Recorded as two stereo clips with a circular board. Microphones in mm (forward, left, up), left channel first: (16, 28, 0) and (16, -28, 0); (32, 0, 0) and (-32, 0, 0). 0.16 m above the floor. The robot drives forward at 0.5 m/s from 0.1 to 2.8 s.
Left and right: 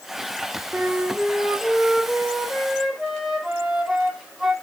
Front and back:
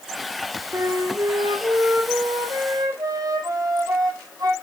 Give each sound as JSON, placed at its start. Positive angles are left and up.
{"t": 0.7, "sound": "a flute", "azimuth_deg": -150, "distance_m": 0.5}